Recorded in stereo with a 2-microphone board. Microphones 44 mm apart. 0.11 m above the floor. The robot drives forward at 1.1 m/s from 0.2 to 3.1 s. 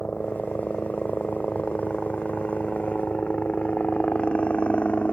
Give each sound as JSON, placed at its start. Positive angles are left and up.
{"t": 0.0, "sound": "a helicopter", "side_deg": 30}